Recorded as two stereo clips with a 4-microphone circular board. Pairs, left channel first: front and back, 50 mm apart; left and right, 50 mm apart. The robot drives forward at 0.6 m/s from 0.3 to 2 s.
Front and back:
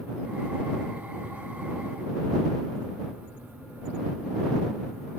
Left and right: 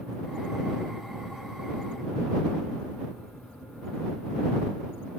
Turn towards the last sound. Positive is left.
No sound to turn to.